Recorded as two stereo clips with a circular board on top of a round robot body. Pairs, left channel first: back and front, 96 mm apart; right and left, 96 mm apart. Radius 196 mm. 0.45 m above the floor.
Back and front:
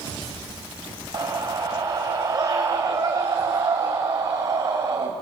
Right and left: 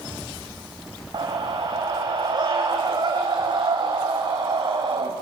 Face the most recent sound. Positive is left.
turn(degrees=50)